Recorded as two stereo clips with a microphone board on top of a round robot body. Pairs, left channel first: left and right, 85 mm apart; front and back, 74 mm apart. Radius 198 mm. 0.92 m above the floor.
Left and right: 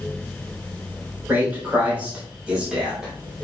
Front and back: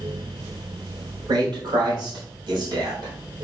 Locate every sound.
1.3 s a man speaking: 160° right, 3.5 m; by 3.1 s 175° right, 4 m